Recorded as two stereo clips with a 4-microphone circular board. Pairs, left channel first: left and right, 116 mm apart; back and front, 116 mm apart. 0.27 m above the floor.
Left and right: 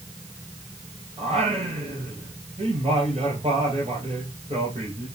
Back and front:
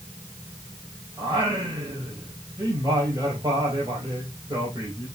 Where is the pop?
I don't hear a pop.